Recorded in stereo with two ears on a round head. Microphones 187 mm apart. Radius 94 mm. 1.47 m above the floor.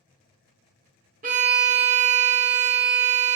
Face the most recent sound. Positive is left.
turn(degrees=-35)  # may be behind; listen again after turning